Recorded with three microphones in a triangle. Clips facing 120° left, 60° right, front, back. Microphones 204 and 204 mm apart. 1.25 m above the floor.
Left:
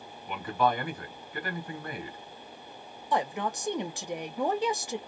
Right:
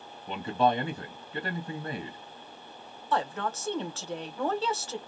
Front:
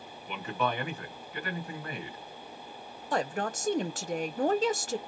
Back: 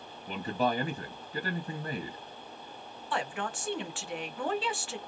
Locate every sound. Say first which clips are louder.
0.3 s a man speaking: right 2 dB, back 2 dB; 125° right, 1.8 m
3.1 s a woman speaking: left 1 dB, front 4 dB; 45° left, 0.9 m